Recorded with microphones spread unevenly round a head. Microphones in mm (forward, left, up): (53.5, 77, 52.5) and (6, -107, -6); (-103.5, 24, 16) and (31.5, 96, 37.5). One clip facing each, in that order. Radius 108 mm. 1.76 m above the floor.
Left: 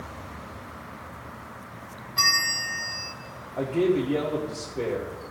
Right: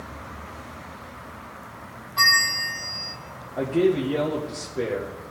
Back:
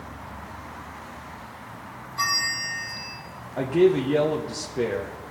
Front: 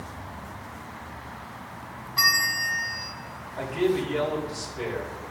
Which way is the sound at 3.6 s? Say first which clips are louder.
Right 2 dB, back 6 dB; 170° left.